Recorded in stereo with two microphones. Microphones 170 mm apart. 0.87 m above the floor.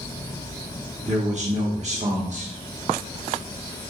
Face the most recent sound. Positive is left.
turn(degrees=-45)  # may be behind; listen again after turning